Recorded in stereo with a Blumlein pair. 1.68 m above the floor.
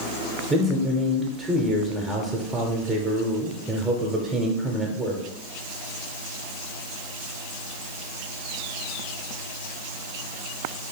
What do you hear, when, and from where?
0.5 s a man speaking: 15° right, 0.9 m